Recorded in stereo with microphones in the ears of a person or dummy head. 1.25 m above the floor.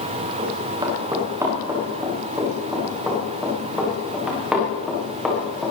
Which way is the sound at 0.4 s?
20° right (ahead or behind).